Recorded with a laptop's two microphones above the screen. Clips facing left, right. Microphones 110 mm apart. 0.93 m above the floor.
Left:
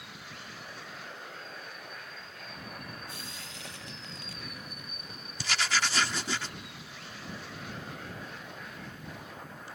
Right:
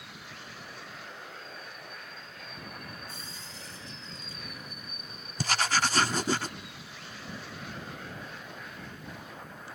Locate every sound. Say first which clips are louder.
3.1 s frying: left 1 dB; 80° left
5.4 s writing: right 3 dB; 45° right (ahead or behind)